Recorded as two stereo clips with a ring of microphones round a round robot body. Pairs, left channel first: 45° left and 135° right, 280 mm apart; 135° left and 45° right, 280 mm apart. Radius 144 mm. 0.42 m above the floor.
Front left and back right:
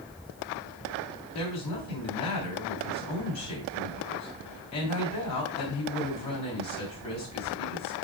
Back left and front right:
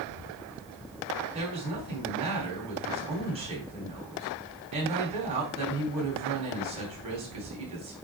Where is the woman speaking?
25° left, 3 m.